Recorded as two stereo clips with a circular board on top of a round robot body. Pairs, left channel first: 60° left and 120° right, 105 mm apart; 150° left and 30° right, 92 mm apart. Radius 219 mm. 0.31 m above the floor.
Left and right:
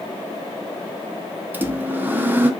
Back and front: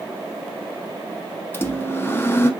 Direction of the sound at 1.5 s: 175° right.